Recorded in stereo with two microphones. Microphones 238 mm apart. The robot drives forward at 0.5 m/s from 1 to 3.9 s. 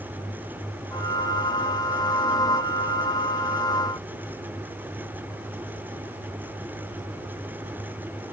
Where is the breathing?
No breathing in this recording.